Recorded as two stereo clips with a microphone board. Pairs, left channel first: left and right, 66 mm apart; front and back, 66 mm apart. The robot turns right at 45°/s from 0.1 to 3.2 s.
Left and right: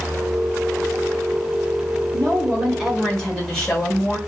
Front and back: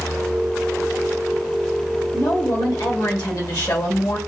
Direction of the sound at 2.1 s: 35° right.